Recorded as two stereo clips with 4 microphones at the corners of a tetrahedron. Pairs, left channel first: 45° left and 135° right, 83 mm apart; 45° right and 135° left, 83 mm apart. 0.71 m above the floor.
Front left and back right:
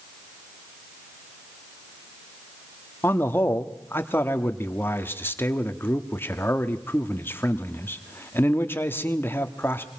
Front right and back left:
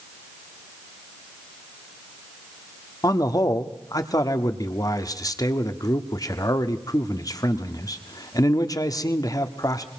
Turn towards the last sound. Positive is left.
turn(degrees=-15)